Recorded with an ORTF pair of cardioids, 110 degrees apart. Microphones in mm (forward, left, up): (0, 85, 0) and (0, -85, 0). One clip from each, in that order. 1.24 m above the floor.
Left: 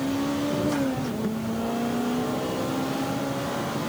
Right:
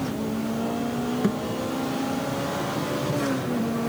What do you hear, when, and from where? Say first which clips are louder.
1.2 s a thud: right 4 dB; 40° right